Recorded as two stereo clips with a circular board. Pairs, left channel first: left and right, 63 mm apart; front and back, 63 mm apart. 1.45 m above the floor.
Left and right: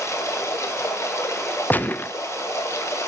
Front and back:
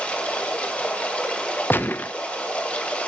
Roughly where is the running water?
Ahead left.